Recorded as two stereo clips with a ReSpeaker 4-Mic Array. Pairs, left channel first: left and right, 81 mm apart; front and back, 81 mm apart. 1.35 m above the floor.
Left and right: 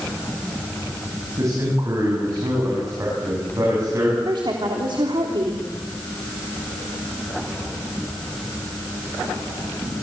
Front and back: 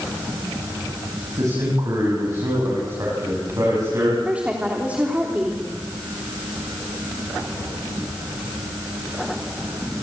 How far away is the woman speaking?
About 3 m.